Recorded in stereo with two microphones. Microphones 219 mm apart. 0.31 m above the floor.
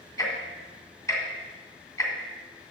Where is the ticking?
15° left (ahead or behind), 2.5 m.